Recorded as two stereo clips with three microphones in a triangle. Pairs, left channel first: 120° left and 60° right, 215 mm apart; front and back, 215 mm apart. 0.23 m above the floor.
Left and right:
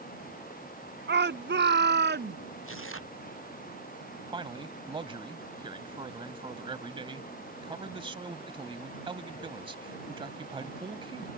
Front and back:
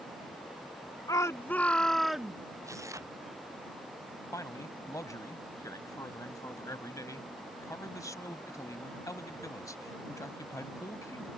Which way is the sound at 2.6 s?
105° left.